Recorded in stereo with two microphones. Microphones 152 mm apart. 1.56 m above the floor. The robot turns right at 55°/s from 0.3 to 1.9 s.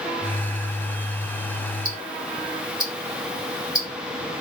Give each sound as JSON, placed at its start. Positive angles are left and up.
{"t": 1.9, "sound": "ticking", "side_deg": 20, "distance_m": 2.0}